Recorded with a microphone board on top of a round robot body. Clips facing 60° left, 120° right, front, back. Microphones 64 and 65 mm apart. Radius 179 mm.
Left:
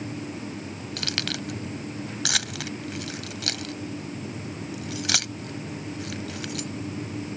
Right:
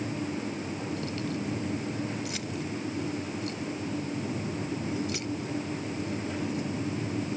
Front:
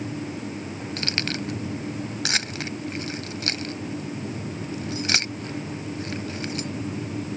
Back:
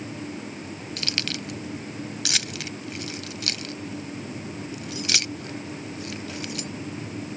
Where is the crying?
I don't hear crying.